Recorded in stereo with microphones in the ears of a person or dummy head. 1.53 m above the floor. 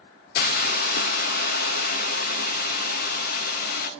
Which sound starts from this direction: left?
A hiss, at 0.3 s.